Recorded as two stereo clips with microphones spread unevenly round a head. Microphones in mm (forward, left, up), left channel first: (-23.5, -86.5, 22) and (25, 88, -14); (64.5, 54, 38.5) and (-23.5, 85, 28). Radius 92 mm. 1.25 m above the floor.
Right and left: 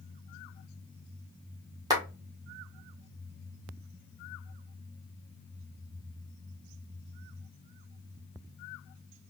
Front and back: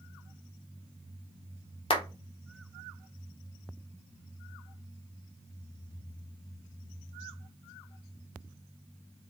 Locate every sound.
1.9 s a clap: 5° left, 1.0 m